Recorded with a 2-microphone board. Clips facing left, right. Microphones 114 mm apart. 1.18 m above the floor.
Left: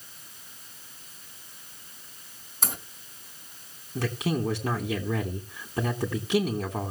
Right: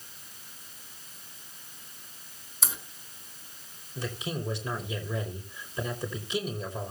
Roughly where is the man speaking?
Left.